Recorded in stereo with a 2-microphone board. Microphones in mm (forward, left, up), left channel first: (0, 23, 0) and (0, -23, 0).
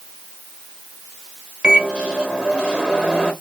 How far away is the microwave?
About 1.4 m.